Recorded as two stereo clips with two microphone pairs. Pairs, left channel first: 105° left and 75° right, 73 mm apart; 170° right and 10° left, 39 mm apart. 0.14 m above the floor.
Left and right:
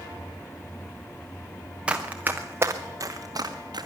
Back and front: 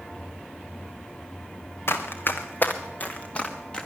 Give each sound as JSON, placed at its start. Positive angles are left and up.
{"t": 1.9, "sound": "running footsteps", "azimuth_deg": -150, "distance_m": 1.5}